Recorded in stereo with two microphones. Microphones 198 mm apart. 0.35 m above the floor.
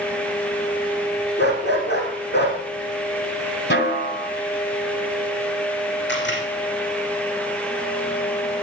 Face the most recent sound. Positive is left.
turn(degrees=65)  # may be behind; listen again after turning